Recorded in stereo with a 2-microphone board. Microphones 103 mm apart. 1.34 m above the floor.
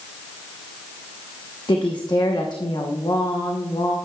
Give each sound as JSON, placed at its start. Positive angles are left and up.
{"t": 1.7, "sound": "a woman speaking", "side_deg": 45, "distance_m": 1.0}